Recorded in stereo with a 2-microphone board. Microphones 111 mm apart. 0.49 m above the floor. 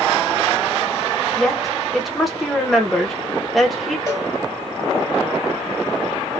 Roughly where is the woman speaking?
Centre.